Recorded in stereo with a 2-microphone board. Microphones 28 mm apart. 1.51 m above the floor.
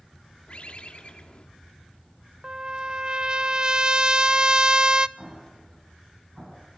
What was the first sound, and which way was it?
A bird, 40° left (ahead or behind).